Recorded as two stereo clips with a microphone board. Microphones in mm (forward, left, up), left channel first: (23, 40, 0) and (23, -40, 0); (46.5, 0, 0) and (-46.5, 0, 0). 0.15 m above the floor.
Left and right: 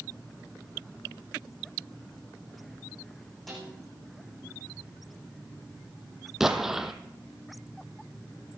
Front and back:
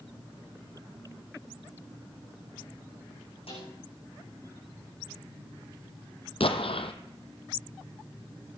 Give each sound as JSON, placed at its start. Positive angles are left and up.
{"t": 3.5, "sound": "a snare drum", "azimuth_deg": 0, "distance_m": 7.0}
{"t": 6.4, "sound": "an explosion", "azimuth_deg": -5, "distance_m": 1.2}